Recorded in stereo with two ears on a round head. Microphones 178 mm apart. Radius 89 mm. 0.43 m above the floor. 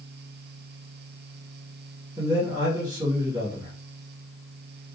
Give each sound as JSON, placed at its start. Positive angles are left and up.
{"t": 2.2, "sound": "a man speaking", "side_deg": -20, "distance_m": 1.0}